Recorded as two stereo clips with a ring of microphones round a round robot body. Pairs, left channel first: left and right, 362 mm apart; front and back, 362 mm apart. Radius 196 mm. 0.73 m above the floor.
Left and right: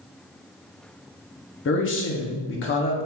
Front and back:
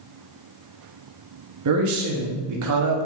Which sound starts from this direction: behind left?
A man speaking, at 1.6 s.